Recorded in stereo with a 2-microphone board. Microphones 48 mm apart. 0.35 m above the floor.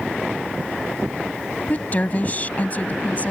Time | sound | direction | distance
1.7 | a woman speaking | 35° left (ahead or behind) | ?